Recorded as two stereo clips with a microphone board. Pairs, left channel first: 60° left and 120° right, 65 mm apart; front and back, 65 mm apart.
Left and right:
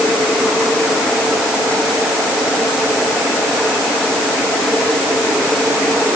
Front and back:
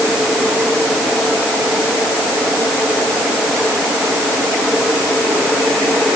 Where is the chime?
I don't hear a chime.